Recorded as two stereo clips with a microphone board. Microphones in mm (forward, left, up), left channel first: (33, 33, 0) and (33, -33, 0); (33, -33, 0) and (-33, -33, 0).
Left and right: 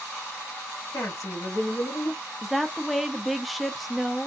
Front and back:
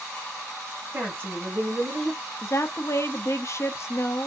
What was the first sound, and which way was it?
A woman speaking, 120° left.